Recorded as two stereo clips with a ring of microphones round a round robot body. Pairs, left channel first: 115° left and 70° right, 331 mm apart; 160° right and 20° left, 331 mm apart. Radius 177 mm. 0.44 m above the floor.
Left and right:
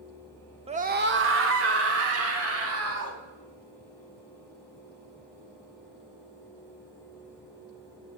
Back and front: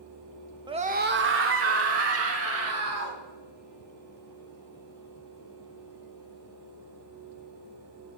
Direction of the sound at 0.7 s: 30° right.